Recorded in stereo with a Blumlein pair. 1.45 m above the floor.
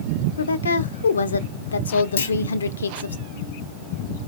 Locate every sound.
0.4 s a woman speaking: 70° left, 0.5 m
2.2 s a clunk: 65° left, 0.9 m